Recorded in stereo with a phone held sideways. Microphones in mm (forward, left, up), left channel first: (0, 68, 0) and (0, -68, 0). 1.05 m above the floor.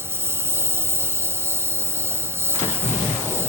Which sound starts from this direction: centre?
A lawn mower, at 0.0 s.